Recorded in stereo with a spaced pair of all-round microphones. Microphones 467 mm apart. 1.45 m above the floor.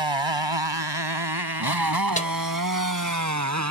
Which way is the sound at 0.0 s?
70° right (ahead or behind).